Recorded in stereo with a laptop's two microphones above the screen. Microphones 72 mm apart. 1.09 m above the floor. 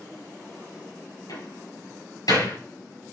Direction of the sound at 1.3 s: 60° left (ahead or behind).